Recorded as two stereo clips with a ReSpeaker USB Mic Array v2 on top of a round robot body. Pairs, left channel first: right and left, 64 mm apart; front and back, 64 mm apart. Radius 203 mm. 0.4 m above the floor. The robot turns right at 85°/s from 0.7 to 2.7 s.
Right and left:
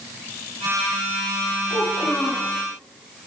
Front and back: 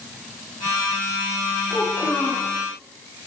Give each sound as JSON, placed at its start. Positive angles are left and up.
{"t": 1.7, "sound": "a child speaking", "azimuth_deg": -90, "distance_m": 0.9}